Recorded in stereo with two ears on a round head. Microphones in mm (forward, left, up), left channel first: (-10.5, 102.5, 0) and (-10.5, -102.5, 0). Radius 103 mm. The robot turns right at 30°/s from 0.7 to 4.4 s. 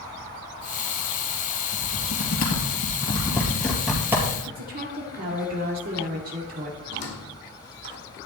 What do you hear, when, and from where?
1.7 s typing on a keyboard: 60° left (ahead or behind), 3.5 m; by 4.4 s 15° right (ahead or behind), 3.5 m
4.5 s a woman speaking: 45° right (ahead or behind), 2 m
6.9 s a squeak: 50° left (ahead or behind), 2.5 m